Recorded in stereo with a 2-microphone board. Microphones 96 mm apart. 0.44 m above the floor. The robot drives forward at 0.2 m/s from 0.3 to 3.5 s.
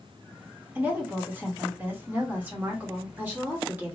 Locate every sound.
0.8 s a woman speaking: 20° right (ahead or behind), 1.2 m; by 3.9 s 15° right (ahead or behind), 1.4 m